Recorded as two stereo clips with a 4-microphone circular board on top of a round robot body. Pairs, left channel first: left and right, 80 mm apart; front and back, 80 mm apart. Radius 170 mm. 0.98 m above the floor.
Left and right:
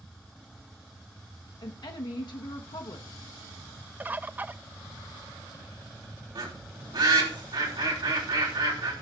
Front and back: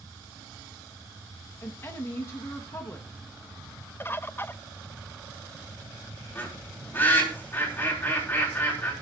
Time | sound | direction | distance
1.6 | a woman speaking | 60° left | 1.1 m
4.0 | a bird | 40° right | 0.6 m
6.3 | a bird | 60° right | 3.5 m